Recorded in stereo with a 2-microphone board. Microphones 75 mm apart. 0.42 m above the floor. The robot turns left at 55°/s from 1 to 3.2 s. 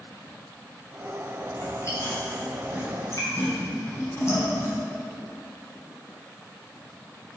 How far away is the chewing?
About 2.5 m.